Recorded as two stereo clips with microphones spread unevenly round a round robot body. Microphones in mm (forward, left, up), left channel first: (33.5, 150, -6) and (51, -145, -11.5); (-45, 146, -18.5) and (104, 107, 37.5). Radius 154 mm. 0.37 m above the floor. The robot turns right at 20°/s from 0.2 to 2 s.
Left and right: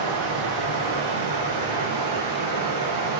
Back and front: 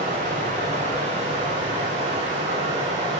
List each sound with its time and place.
0.0 s running water: 115° right, 5 m; by 3.2 s 75° right, 5 m